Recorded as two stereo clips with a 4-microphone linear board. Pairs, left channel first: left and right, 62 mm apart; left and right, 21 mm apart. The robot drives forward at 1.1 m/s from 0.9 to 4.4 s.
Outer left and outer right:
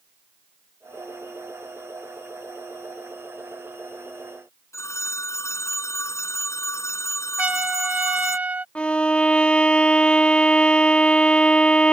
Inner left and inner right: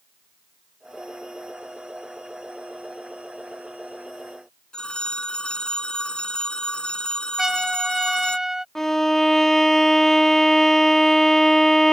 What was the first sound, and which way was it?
A phone ringing, 55° left (ahead or behind).